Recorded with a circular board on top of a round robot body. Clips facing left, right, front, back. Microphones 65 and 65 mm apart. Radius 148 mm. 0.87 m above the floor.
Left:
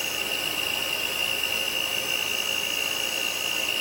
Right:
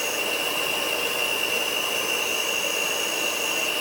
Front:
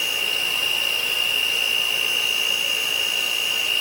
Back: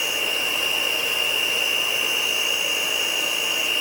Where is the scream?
I don't hear a scream.